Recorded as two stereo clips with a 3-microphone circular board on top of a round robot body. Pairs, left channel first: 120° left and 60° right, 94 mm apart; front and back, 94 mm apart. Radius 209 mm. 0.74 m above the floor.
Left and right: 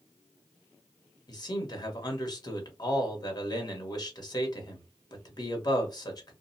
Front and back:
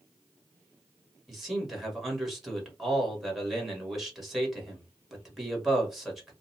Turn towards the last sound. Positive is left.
turn(degrees=90)